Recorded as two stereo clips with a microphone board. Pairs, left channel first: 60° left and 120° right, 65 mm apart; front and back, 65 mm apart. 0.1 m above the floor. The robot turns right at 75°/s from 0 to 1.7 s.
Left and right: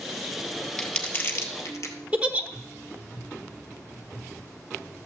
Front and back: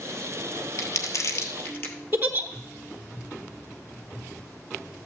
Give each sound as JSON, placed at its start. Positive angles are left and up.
{"t": 0.8, "sound": "crumpling", "azimuth_deg": -25, "distance_m": 1.1}
{"t": 2.1, "sound": "a giggle", "azimuth_deg": -170, "distance_m": 1.0}